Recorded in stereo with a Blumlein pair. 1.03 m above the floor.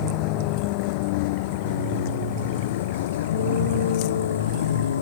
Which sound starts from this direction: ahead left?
A vehicle, at 0.0 s.